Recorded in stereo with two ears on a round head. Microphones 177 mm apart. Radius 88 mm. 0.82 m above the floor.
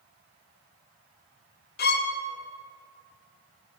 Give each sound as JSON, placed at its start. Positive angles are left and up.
{"t": 1.8, "sound": "a violin", "side_deg": 50, "distance_m": 0.6}